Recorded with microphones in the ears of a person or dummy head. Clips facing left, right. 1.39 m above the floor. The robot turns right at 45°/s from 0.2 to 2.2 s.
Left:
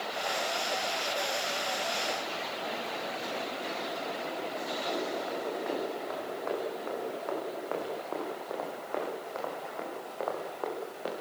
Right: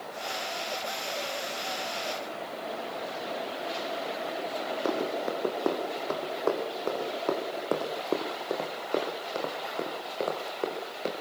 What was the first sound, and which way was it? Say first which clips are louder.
Running footsteps: right 5 dB; 75° right (ahead or behind).